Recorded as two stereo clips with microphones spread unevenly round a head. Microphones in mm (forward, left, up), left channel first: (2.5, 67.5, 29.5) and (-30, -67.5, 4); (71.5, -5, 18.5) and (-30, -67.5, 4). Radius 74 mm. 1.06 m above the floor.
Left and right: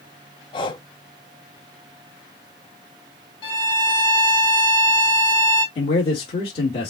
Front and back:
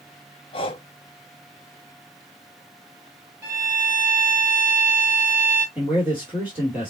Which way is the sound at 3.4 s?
135° left.